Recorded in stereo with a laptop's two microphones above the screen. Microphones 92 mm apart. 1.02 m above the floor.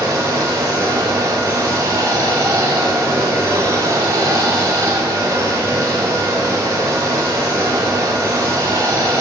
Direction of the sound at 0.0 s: 35° right (ahead or behind).